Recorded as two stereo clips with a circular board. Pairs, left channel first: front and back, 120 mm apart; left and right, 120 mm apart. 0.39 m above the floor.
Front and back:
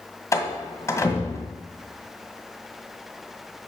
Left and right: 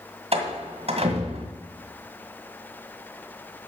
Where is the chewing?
I don't hear chewing.